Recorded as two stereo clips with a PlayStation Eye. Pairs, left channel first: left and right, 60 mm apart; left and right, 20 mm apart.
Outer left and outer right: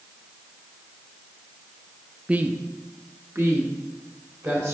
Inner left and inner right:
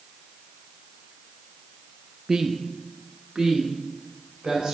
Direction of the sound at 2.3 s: 20° right (ahead or behind).